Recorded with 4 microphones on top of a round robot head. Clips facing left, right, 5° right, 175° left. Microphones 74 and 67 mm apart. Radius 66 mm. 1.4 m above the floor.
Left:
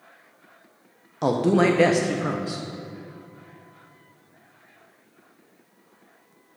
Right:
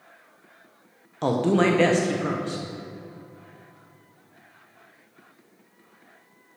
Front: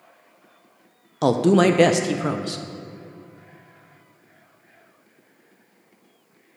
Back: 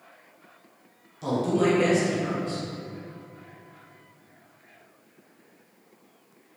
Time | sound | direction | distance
1.2 | a woman speaking | 5° left | 0.7 m